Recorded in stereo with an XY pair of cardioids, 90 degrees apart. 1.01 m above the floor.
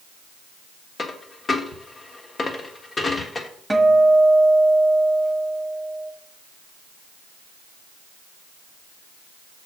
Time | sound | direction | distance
1.0 | a dropped coin | 40° left | 1.3 m
3.7 | a guitar | straight ahead | 1.4 m